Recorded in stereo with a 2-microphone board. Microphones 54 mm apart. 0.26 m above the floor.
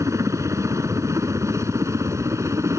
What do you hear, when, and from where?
0.0 s a helicopter: 65° right (ahead or behind); by 2.8 s 60° right (ahead or behind)